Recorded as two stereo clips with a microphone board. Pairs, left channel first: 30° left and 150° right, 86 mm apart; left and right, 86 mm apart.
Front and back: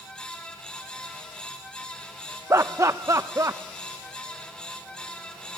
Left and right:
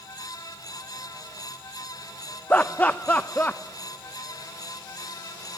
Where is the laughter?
160° left, 0.7 m.